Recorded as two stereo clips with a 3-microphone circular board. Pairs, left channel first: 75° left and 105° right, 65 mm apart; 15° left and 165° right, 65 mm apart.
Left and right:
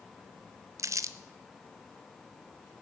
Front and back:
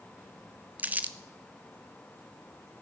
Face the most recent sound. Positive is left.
turn(degrees=-105)